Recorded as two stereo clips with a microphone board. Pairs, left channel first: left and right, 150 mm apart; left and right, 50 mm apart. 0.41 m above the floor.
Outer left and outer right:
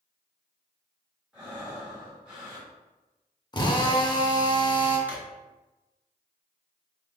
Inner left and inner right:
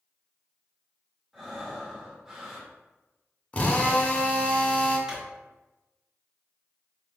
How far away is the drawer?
About 0.9 m.